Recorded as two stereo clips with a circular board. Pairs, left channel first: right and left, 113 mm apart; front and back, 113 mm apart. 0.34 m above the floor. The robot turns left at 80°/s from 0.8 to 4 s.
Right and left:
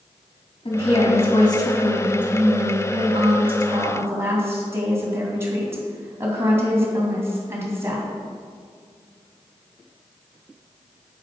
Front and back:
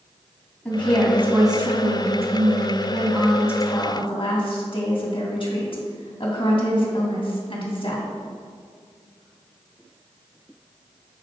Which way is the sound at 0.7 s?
80° right.